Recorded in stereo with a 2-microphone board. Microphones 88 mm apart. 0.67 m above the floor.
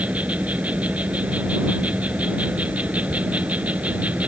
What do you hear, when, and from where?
0.0 s an insect: 15° right (ahead or behind)